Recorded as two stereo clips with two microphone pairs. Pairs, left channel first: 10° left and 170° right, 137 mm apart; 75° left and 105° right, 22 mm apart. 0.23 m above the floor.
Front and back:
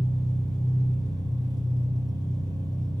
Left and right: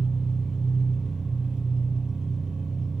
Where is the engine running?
125° right, 0.9 m.